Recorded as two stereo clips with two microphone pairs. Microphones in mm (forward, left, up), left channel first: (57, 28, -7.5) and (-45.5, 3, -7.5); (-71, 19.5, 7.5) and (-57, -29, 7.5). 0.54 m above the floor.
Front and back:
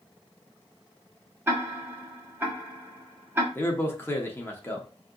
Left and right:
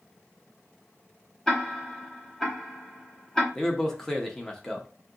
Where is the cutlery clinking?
No cutlery clinking in this recording.